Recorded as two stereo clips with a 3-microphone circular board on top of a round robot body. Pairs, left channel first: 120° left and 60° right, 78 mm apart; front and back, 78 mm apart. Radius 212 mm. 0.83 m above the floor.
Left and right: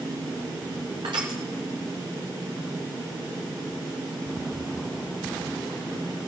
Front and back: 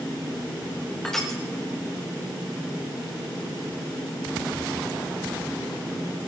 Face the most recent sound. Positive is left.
turn(degrees=-85)